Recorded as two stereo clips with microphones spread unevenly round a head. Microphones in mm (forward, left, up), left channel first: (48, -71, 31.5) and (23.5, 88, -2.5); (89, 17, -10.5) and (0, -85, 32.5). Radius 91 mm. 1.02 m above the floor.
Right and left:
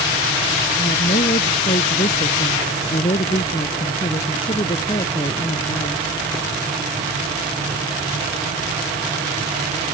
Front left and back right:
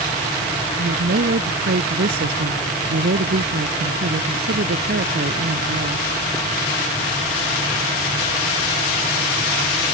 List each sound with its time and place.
0.8 s a woman speaking: 135° right; by 6.0 s 150° right